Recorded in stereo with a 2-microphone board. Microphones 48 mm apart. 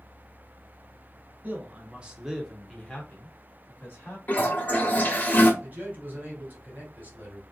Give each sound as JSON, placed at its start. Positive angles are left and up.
{"t": 1.4, "sound": "a man speaking", "side_deg": -35, "distance_m": 1.0}
{"t": 4.3, "sound": "a toilet flushing", "side_deg": 40, "distance_m": 0.8}
{"t": 5.6, "sound": "a man speaking", "side_deg": -35, "distance_m": 1.6}